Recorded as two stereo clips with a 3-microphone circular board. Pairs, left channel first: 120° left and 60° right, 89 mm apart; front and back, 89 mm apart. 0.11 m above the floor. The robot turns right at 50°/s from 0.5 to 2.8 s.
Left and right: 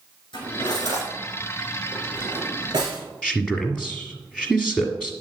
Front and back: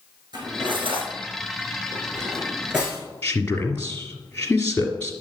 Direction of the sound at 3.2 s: 50° left.